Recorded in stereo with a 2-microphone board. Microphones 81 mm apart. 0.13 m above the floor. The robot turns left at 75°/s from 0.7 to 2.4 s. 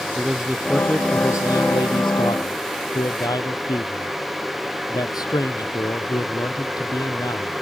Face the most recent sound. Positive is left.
turn(degrees=60)